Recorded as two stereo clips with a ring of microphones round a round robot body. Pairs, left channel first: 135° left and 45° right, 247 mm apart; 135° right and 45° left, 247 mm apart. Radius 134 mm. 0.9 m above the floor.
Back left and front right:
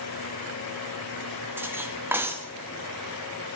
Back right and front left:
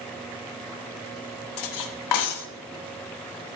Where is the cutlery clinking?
125° right, 0.9 m.